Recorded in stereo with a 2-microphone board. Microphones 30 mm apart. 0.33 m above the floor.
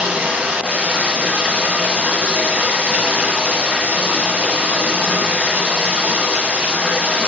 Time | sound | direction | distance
0.0 | running water | 70° right (ahead or behind) | 1.0 m